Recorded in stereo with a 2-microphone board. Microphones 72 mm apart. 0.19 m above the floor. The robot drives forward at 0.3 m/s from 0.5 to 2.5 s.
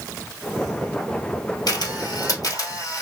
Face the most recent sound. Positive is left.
turn(degrees=60)  # may be behind; listen again after turning